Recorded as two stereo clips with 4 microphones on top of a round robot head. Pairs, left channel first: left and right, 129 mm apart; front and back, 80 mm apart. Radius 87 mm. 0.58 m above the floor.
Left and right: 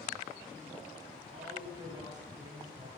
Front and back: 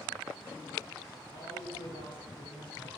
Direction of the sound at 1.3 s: 25° right.